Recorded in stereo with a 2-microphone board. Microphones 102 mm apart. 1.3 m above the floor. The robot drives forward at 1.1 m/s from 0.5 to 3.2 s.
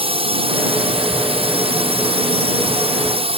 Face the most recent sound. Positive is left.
turn(degrees=-75)  # may be behind; listen again after turning